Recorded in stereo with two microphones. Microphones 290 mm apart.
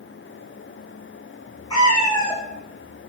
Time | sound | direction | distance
1.7 | a cat meowing | 15° left (ahead or behind) | 3 m